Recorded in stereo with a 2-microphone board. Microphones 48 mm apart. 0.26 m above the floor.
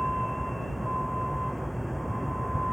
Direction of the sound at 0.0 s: 5° left (ahead or behind).